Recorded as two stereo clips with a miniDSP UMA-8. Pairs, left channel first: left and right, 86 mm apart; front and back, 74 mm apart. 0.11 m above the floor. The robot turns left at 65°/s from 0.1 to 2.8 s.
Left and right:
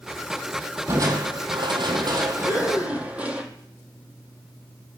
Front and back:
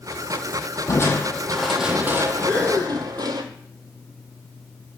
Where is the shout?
I don't hear a shout.